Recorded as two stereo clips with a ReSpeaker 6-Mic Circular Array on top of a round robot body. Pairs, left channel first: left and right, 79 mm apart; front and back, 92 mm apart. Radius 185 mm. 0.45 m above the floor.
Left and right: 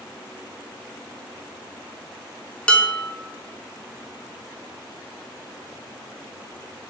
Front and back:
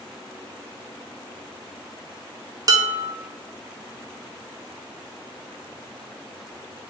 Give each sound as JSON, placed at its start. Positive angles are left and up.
{"t": 2.7, "sound": "dishes clattering", "azimuth_deg": 160, "distance_m": 0.6}